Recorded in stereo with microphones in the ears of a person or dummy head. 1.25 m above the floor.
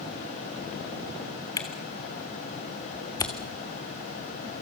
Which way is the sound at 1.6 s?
20° left (ahead or behind).